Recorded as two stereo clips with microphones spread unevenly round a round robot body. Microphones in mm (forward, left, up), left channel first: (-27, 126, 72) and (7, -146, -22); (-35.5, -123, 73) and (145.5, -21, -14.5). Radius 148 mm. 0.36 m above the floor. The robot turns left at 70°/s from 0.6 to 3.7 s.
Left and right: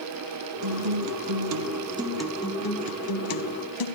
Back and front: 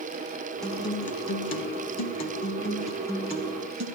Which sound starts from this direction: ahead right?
A guitar, at 0.6 s.